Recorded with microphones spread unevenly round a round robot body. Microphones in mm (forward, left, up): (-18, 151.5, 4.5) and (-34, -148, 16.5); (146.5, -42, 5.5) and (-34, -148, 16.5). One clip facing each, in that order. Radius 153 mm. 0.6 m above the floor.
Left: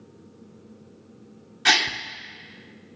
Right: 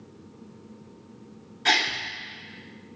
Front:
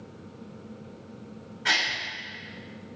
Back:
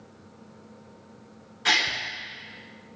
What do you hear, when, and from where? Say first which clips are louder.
1.6 s a gasp: left 1 dB, back 4 dB; 150° left, 0.6 m